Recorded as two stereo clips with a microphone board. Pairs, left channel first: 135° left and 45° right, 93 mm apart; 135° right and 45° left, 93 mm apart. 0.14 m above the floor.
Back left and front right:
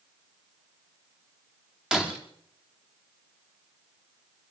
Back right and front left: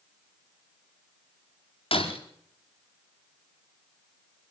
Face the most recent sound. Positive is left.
turn(degrees=-130)